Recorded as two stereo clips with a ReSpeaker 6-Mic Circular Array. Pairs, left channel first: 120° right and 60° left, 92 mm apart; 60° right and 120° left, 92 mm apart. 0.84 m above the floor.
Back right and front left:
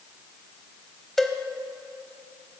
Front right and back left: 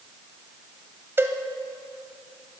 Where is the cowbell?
155° left, 0.7 m.